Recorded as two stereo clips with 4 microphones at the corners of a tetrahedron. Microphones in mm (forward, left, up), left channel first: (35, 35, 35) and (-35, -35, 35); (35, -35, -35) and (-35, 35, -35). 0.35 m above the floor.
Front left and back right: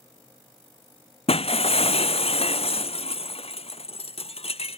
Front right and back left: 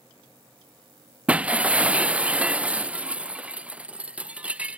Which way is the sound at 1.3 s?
55° left.